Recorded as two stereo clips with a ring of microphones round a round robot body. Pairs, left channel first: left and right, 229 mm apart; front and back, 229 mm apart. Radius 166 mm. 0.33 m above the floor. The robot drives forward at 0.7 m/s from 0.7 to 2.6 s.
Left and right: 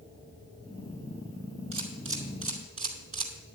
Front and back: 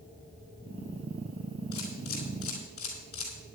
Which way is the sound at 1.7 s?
60° right.